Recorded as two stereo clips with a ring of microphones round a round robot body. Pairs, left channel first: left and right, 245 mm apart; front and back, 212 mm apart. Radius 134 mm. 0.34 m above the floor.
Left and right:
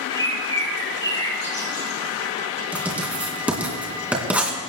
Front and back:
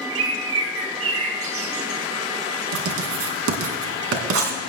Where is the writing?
175° right, 3 m.